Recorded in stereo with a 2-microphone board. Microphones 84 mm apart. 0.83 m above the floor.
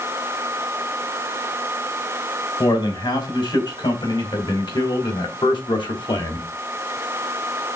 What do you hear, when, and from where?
2.6 s a man speaking: 75° left (ahead or behind), 5 m; by 6.5 s 80° left, 3 m